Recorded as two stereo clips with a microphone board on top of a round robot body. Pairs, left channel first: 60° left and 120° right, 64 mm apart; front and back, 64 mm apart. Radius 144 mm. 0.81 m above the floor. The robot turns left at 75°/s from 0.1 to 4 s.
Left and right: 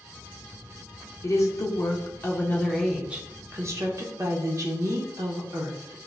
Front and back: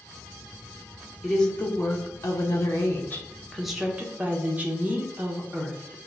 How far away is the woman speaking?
About 1.1 m.